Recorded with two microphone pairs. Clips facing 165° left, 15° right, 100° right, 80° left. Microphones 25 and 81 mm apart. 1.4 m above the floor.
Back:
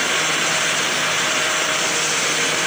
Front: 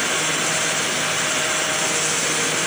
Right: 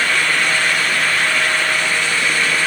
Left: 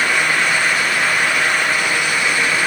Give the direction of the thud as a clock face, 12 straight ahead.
I don't hear a thud.